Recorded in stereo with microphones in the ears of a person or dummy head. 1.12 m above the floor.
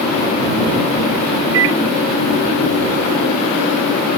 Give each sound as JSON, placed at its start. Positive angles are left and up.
{"t": 1.5, "sound": "a microwave", "side_deg": -75}